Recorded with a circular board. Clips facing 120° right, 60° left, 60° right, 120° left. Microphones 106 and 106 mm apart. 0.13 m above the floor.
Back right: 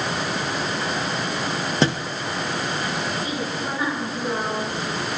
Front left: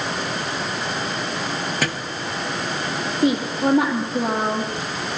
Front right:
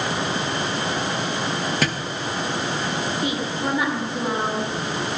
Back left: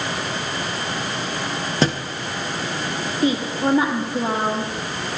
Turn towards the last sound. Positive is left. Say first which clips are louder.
# front left 8 dB, back left 5 dB
turn(degrees=65)